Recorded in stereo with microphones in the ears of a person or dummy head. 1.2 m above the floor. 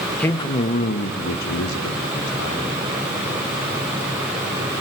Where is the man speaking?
10° left (ahead or behind), 1.1 m; by 2.8 s 80° left, 4 m.